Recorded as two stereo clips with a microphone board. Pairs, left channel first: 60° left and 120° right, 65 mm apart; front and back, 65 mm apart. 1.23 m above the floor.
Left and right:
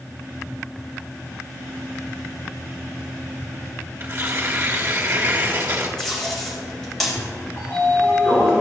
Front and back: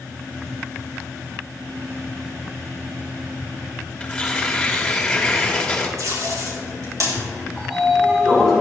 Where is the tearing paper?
70° right, 1.4 m.